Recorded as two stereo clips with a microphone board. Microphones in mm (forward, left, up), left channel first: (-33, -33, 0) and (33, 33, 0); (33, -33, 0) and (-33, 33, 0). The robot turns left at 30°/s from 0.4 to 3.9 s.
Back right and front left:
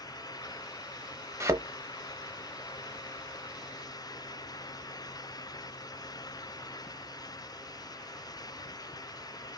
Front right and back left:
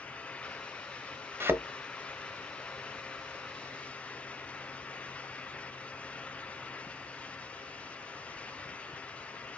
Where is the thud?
85° left, 0.9 m; by 1.6 s 80° left, 0.9 m.